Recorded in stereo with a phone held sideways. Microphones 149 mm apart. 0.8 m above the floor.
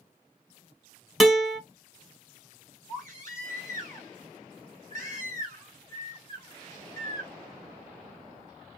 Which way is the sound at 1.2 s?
Centre (ahead or behind).